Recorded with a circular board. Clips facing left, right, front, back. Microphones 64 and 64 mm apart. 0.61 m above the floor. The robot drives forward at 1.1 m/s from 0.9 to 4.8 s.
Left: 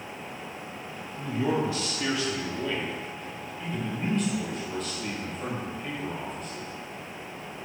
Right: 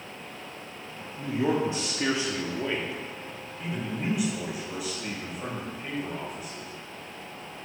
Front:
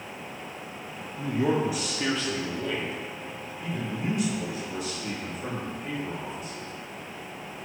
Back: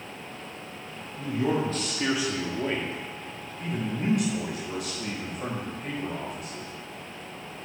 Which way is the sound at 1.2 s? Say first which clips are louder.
Right 1 dB, front 1 dB; 30° right.